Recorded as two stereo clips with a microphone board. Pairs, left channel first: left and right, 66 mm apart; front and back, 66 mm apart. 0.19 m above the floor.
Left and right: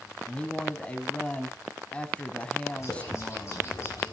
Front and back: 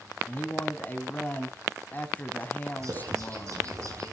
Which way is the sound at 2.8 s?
135° left.